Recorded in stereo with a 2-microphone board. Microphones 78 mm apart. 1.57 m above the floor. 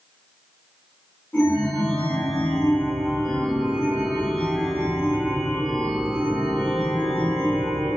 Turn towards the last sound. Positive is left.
turn(degrees=25)  # may be behind; listen again after turning